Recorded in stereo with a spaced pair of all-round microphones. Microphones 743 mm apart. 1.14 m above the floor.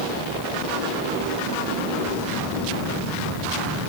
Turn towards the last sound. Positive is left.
No sound to turn to.